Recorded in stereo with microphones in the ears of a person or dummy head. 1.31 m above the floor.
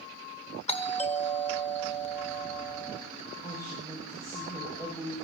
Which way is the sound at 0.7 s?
30° left (ahead or behind).